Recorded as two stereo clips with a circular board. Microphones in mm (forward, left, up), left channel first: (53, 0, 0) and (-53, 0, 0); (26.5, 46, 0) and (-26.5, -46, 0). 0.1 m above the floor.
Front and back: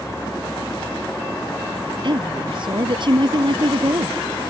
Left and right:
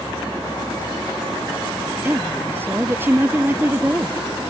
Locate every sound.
2.0 s a woman speaking: 175° left